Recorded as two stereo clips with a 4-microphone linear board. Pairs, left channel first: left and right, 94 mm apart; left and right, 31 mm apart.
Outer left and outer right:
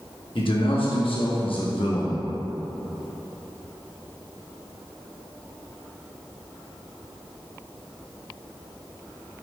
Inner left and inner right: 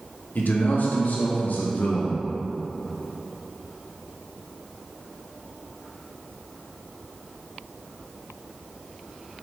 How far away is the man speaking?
About 1.5 m.